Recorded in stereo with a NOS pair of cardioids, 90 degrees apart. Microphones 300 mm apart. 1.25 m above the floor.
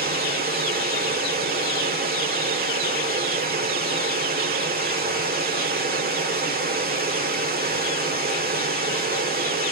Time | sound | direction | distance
0.0 | running water | 30° right | 2.0 m